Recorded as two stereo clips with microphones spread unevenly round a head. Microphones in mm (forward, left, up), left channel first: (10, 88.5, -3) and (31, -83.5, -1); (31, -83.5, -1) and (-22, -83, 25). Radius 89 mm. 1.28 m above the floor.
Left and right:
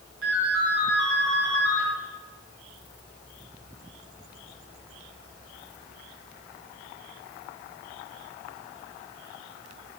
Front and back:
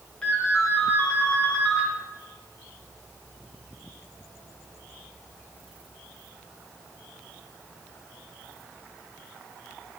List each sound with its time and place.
0.2 s a ringtone: 80° right, 5.5 m